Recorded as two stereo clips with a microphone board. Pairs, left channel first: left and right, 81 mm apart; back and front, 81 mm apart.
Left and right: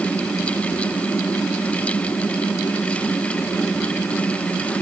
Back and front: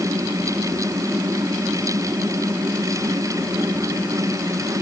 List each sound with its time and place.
Only background noise.